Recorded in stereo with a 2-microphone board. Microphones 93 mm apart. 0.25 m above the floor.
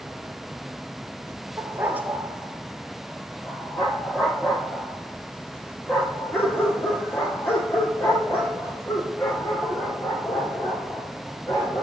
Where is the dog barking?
30° right (ahead or behind), 1.2 m; by 11.8 s 35° left (ahead or behind), 6.5 m.